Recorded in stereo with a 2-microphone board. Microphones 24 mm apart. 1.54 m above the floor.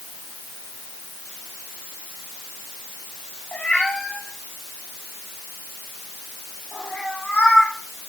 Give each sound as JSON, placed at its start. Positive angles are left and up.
{"t": 3.5, "sound": "a cat meowing", "side_deg": 80, "distance_m": 7.0}